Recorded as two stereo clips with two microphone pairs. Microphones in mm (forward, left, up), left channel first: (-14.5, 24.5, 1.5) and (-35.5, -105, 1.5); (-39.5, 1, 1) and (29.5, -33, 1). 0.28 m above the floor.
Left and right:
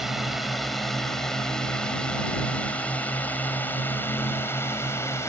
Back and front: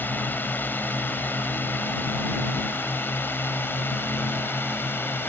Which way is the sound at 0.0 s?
175° left.